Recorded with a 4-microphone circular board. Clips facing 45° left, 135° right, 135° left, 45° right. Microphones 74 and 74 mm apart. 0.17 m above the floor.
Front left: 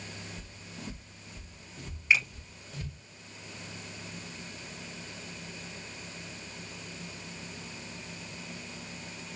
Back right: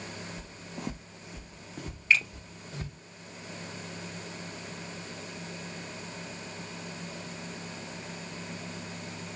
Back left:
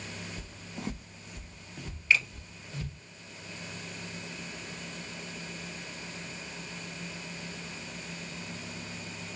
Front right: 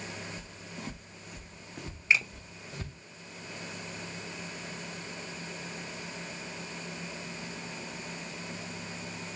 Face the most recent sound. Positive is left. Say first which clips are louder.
# back right 1 dB, even
turn(degrees=-10)